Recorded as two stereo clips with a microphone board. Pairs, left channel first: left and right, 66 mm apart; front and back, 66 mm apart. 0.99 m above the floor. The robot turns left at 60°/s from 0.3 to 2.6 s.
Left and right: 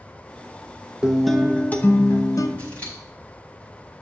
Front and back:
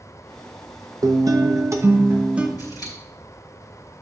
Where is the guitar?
170° right, 0.8 m; by 2.5 s 105° left, 0.8 m.